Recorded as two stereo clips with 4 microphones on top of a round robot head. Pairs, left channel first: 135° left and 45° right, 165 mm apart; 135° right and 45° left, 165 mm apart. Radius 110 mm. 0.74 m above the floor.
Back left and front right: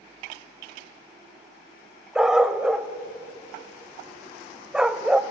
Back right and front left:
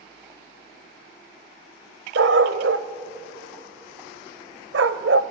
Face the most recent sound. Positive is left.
turn(degrees=40)